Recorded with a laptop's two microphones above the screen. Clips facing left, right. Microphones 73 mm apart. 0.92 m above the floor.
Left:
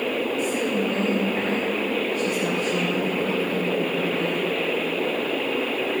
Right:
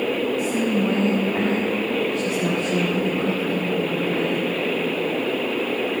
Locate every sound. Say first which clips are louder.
0.4 s a woman speaking: right 2 dB; 20° right (ahead or behind), 1.0 m; by 4.4 s 85° right, 3 m